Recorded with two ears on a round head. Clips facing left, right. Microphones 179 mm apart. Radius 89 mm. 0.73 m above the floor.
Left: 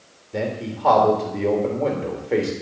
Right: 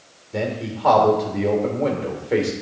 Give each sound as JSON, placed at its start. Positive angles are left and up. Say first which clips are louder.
{"t": 0.3, "sound": "a man speaking", "louder": "right 1 dB", "side_deg": 0, "distance_m": 3.0}